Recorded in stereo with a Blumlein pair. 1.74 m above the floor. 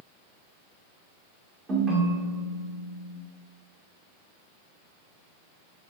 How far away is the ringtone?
About 1.9 m.